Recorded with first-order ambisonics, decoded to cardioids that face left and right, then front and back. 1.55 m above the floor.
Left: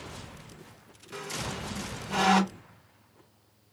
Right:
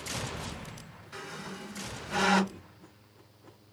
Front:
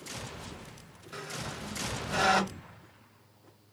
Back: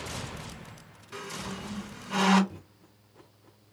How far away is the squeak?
About 3 m.